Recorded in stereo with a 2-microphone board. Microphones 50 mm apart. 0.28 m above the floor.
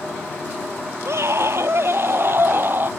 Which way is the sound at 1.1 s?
65° right (ahead or behind).